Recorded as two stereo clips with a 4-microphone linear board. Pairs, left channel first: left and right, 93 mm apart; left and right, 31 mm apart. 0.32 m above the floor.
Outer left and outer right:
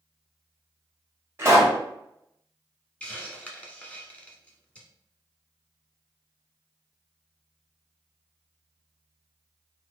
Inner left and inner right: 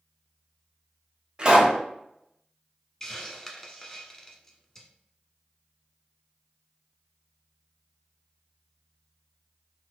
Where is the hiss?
15° left (ahead or behind), 0.7 m.